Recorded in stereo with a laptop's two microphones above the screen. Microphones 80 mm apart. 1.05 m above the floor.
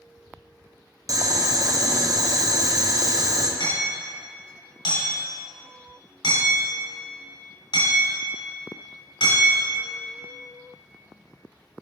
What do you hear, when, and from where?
1.1 s boiling: 45° right (ahead or behind), 0.6 m
3.6 s hammering: 85° left, 3 m